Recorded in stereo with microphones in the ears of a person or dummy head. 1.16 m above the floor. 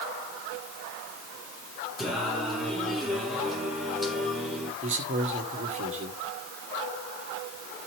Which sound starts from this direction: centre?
Singing, at 2.0 s.